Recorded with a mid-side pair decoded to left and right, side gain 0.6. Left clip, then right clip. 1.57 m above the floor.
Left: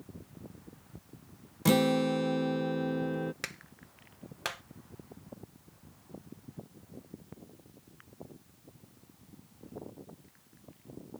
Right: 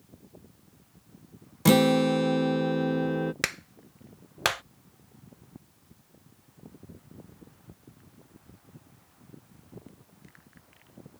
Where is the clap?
50° right.